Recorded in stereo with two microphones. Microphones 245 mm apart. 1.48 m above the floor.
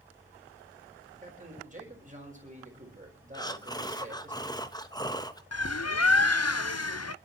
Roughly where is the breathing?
Centre.